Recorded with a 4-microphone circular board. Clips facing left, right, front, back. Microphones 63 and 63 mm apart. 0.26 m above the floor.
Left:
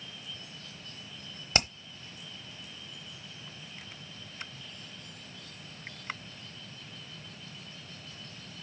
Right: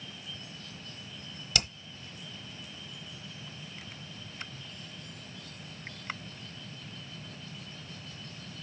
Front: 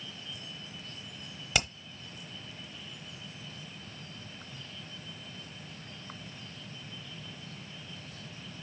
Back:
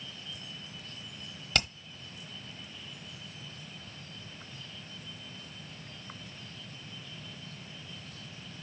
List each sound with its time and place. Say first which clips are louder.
1.5 s hammering: left 4 dB, even; 75° left, 1.1 m